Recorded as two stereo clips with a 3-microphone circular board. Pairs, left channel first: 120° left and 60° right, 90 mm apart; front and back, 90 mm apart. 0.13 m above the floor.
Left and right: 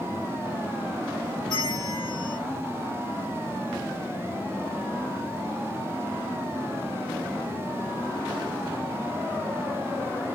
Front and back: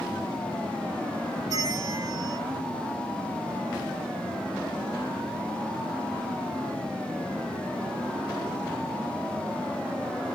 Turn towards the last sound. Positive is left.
turn(degrees=150)